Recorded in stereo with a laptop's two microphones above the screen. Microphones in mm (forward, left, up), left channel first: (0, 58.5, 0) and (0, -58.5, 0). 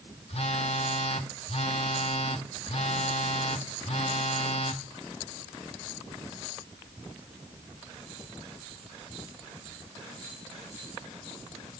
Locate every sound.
0.3 s a phone buzzing: 60° left (ahead or behind), 1.1 m